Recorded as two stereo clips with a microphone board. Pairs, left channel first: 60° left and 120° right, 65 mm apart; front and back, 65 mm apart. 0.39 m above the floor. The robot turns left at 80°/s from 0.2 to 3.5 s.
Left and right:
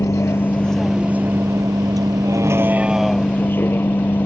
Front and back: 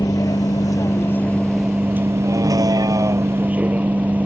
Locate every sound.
0.0 s a vehicle: 20° left; by 4.3 s 115° left